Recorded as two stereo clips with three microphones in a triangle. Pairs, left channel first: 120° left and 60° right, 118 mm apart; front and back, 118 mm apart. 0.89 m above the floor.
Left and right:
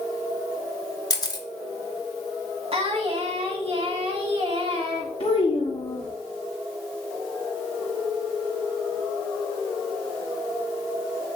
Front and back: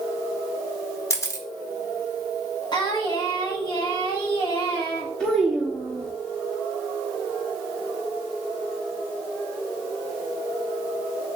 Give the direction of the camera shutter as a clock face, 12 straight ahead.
10 o'clock.